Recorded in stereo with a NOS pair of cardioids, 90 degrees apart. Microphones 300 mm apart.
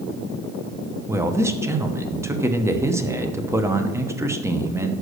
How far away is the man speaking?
About 0.9 m.